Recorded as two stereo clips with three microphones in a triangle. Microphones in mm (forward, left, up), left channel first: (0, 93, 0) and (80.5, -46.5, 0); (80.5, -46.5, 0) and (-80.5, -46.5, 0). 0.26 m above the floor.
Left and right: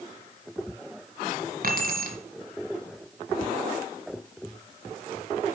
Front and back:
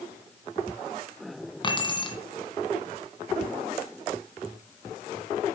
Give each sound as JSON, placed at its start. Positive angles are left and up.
{"t": 1.6, "sound": "keys jangling", "azimuth_deg": -55, "distance_m": 1.9}